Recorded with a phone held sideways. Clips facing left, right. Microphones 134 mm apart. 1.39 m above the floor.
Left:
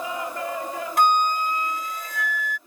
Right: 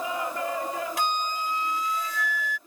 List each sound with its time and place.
1.0 s a flute: 50° left (ahead or behind)